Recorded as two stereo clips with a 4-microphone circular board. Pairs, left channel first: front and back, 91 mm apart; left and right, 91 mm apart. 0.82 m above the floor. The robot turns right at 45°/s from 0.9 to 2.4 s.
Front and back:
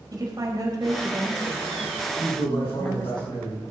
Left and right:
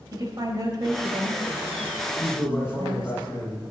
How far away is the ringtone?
I don't hear a ringtone.